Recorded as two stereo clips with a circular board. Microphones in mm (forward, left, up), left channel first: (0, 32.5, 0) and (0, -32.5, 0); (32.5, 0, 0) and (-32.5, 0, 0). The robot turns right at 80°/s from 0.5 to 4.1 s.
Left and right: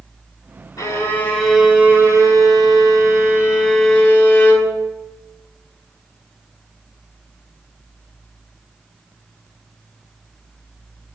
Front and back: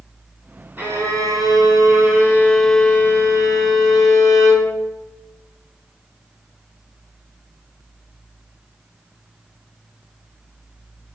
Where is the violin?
115° left, 6 m; by 4.7 s 20° left, 6 m.